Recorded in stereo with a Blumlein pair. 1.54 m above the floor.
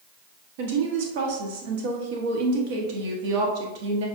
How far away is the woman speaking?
About 1.1 m.